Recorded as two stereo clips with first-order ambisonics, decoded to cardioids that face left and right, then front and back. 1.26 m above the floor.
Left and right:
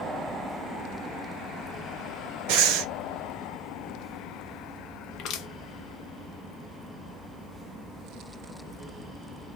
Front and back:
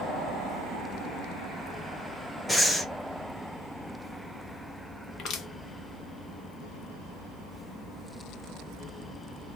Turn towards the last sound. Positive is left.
turn(degrees=50)